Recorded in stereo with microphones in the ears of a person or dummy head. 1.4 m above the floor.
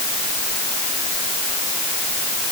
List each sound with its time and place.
Only background noise.